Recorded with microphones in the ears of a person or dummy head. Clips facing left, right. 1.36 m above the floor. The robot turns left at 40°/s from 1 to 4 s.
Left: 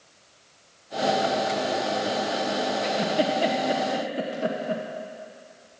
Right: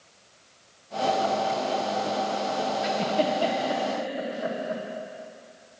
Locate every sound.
2.8 s a giggle: 5° right (ahead or behind), 1.2 m; by 4.8 s 40° left (ahead or behind), 1.2 m